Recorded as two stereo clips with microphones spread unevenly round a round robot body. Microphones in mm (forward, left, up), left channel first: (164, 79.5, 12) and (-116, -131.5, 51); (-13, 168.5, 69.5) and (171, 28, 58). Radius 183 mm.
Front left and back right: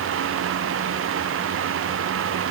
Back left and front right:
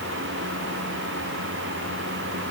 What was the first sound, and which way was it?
Only background noise.